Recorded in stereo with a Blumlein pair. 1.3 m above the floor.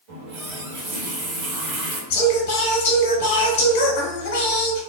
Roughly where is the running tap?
Ahead right.